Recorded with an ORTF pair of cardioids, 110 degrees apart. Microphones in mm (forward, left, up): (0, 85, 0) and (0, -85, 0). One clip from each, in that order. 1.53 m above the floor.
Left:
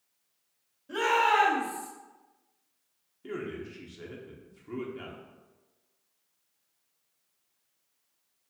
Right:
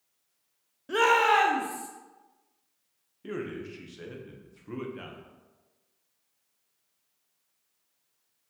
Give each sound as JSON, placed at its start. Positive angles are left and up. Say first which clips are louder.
{"t": 0.9, "sound": "a shout", "louder": "right 3 dB", "azimuth_deg": -60, "distance_m": 0.9}
{"t": 3.2, "sound": "a man speaking", "louder": "right 1 dB", "azimuth_deg": -15, "distance_m": 0.7}